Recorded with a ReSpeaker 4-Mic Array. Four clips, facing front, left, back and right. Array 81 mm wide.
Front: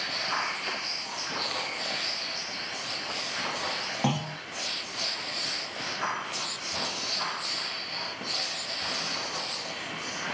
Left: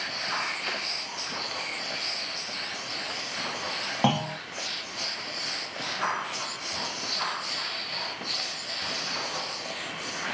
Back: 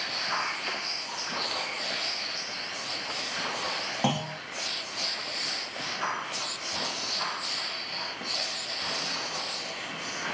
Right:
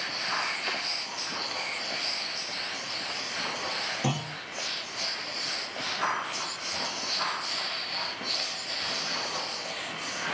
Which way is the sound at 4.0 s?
100° left.